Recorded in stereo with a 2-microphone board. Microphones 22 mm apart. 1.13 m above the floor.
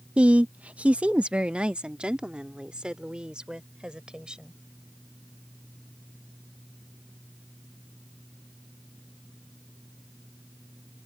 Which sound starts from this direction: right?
A woman speaking, at 0.2 s.